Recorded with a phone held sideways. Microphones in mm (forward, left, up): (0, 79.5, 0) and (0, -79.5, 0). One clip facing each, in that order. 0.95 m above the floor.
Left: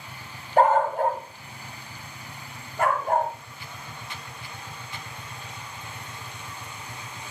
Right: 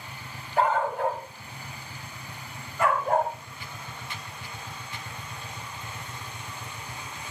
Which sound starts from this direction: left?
A dog barking, at 0.6 s.